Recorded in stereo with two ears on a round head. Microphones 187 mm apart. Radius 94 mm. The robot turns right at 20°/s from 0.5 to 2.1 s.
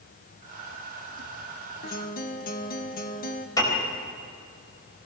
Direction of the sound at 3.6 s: 20° left (ahead or behind).